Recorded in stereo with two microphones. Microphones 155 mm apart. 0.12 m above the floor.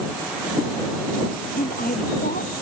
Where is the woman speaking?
70° left (ahead or behind).